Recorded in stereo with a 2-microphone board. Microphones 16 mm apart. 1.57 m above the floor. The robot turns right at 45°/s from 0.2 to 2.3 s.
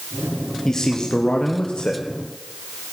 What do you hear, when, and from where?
0.7 s a man speaking: 30° left, 1.2 m; by 2.0 s 95° left, 1.2 m